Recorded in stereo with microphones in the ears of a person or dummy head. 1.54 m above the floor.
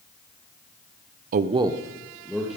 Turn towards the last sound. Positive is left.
turn(degrees=0)  # may be behind; listen again after turning